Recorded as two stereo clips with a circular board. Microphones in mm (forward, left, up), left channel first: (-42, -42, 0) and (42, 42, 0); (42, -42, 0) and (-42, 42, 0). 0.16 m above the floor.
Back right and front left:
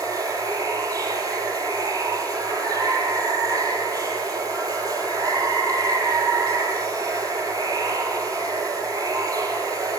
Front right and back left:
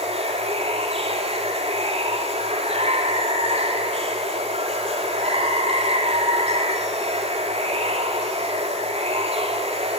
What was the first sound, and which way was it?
Running water, 105° left.